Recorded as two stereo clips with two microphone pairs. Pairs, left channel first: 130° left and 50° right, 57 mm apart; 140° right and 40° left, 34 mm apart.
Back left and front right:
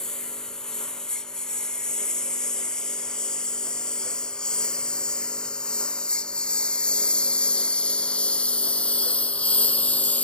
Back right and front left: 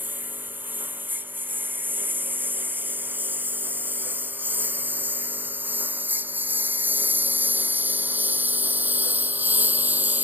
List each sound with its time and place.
0.0 s a lawn mower: 50° left; by 10.2 s 65° left